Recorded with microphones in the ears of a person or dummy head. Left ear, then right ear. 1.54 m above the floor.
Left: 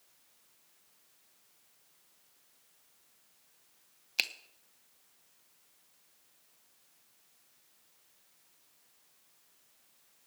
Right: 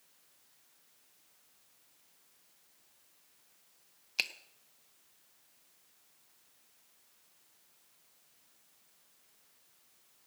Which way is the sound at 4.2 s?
5° left (ahead or behind).